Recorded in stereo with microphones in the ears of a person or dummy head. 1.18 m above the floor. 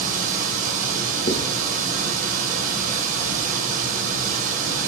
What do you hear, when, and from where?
0.0 s running water: 50° right (ahead or behind), 0.8 m
1.3 s writing: 35° left (ahead or behind), 0.8 m